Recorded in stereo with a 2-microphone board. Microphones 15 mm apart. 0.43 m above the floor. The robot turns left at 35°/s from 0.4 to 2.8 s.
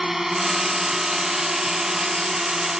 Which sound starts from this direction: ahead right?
A drone, at 0.0 s.